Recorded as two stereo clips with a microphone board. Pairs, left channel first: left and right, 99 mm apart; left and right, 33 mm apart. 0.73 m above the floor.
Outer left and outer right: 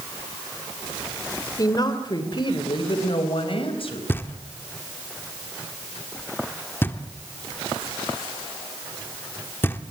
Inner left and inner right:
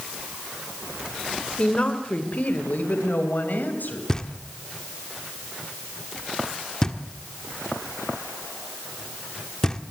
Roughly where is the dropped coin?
I don't hear a dropped coin.